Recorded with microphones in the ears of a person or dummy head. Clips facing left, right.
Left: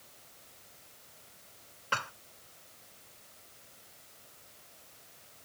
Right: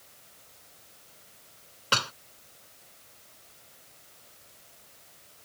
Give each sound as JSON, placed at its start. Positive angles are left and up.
{"t": 1.9, "sound": "dishes clattering", "side_deg": -50}